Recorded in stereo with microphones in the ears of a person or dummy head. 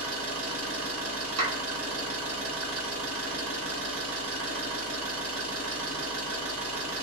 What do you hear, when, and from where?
0.0 s an engine running: 65° right (ahead or behind), 1.4 m
1.4 s a clap: 80° right, 1.0 m